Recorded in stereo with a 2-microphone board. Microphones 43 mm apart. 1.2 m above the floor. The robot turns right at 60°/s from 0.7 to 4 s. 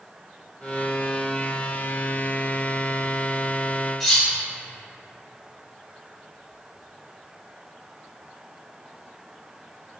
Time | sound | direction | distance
4.0 | cutlery clinking | centre (ahead or behind) | 0.6 m